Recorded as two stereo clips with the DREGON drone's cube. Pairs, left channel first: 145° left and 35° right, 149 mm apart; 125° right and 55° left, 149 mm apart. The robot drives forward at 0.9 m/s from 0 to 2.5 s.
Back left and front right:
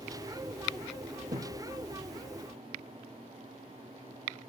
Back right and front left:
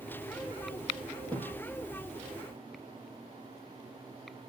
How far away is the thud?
About 2.5 m.